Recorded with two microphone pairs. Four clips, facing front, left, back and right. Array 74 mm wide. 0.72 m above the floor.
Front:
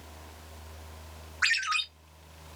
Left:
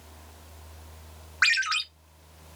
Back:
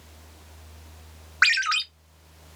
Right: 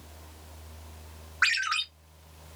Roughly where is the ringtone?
Behind.